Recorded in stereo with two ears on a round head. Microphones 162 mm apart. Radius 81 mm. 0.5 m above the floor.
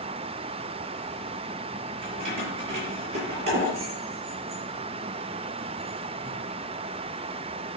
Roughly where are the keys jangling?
Right.